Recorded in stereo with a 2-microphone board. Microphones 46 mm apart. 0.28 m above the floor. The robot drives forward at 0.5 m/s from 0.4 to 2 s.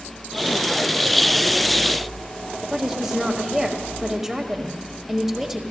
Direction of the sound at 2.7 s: 10° right (ahead or behind).